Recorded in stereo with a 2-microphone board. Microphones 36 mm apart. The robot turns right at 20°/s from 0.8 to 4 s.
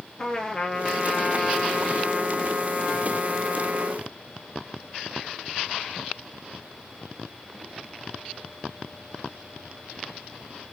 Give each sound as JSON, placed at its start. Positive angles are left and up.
{"t": 0.2, "sound": "a trumpet", "azimuth_deg": 160, "distance_m": 1.0}